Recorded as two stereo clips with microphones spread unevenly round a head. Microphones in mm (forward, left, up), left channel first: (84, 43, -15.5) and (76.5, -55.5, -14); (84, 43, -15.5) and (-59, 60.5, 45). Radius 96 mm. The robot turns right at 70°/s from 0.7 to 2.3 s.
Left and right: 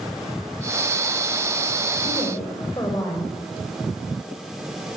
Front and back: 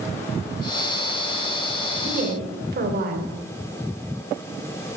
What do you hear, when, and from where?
2.0 s a woman speaking: 140° left, 3 m; by 3.3 s 155° left, 3 m